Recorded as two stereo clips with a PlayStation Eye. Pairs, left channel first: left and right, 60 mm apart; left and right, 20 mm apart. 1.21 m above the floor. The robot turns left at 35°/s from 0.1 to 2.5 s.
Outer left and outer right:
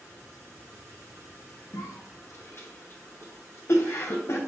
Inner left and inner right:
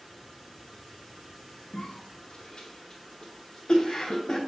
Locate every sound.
1.7 s a cough: 70° left (ahead or behind), 0.6 m; by 4.4 s 45° left (ahead or behind), 0.6 m